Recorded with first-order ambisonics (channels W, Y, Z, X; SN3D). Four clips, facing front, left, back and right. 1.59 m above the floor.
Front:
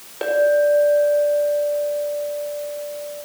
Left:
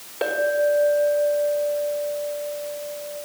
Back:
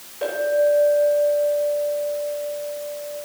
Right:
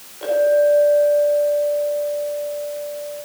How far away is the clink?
About 4 m.